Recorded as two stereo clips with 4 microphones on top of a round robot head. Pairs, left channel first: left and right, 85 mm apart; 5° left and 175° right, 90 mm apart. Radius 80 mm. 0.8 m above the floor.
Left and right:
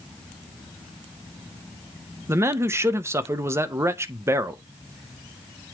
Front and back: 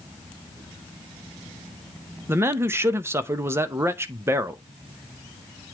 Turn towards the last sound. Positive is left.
turn(degrees=-130)